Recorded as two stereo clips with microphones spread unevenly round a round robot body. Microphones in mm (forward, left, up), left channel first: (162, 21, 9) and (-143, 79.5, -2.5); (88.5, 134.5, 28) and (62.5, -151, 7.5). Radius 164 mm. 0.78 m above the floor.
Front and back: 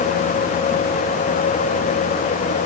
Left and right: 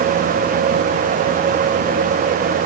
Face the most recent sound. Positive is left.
No sound to turn to.